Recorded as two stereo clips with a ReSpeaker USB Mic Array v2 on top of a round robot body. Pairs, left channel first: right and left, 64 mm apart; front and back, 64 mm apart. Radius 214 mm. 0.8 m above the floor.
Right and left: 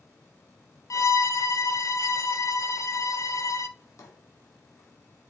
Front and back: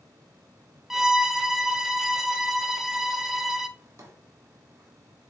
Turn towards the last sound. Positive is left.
turn(degrees=-130)